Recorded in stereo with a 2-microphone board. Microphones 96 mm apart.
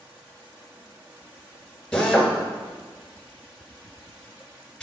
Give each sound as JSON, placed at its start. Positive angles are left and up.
{"t": 1.9, "sound": "a drill", "side_deg": 5, "distance_m": 1.6}